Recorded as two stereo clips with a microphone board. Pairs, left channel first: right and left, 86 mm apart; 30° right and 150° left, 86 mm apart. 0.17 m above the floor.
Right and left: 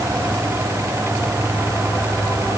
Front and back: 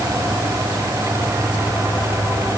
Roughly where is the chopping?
No chopping in this recording.